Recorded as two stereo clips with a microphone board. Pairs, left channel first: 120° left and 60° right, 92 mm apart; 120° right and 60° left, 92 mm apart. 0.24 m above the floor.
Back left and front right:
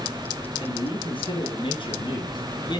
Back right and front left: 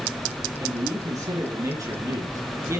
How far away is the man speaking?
About 5.5 m.